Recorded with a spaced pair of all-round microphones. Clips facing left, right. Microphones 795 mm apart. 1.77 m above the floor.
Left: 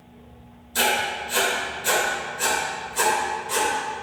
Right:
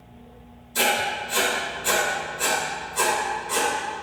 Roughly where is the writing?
Left.